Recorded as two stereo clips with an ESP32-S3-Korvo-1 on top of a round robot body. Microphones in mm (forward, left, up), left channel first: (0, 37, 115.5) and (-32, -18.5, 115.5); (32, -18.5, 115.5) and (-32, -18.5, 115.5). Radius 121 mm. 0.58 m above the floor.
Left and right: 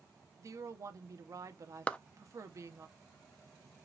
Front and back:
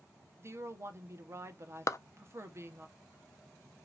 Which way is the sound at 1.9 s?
5° right.